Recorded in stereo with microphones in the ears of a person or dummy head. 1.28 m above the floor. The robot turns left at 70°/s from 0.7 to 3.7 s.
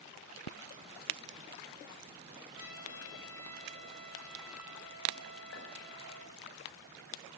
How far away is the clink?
About 4.5 m.